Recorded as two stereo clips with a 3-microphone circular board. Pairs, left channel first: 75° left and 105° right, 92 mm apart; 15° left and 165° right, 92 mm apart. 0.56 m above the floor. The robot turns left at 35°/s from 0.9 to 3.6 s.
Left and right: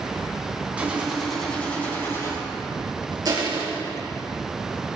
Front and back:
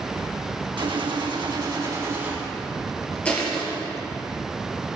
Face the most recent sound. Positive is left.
turn(degrees=-70)